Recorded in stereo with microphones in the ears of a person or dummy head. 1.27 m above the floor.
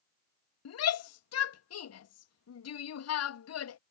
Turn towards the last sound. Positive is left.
turn(degrees=80)